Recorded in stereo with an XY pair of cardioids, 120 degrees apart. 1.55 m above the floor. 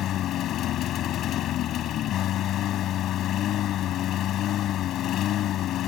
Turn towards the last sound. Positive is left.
turn(degrees=65)